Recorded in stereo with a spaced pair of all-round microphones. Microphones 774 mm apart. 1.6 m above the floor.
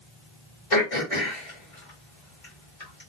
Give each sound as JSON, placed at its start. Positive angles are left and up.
{"t": 0.7, "sound": "throat clearing", "side_deg": 45, "distance_m": 2.0}